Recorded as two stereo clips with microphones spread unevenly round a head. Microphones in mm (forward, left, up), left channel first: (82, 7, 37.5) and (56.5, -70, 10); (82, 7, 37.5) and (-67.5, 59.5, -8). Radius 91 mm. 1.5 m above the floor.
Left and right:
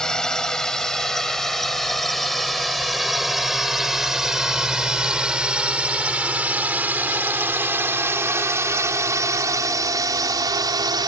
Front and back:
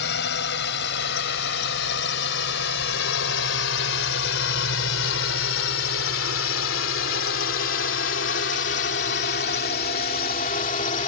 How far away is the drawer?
I don't hear a drawer.